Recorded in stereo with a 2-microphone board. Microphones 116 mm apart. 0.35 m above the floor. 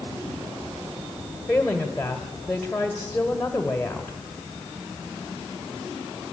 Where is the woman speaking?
10° left (ahead or behind), 1.5 m.